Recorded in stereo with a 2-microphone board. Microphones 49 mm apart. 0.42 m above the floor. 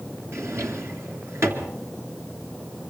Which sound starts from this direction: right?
A drawer, at 0.3 s.